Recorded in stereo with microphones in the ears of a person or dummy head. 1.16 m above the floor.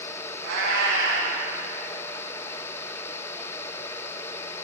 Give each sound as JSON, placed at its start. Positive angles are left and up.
{"t": 0.4, "sound": "a cat meowing", "side_deg": -80, "distance_m": 3.5}